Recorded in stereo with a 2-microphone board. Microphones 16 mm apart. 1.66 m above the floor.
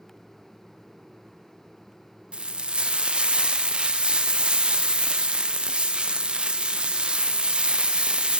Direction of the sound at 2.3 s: 70° right (ahead or behind).